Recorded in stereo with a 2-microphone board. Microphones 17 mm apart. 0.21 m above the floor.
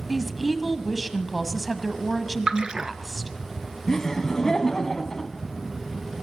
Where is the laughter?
30° left (ahead or behind), 1.4 m.